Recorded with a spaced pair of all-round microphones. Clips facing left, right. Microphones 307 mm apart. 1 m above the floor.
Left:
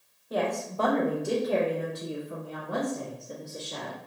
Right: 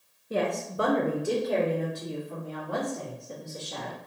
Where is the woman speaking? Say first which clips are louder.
Right 1 dB; 35° right (ahead or behind), 0.8 m; by 4.0 s 25° left (ahead or behind), 2.5 m.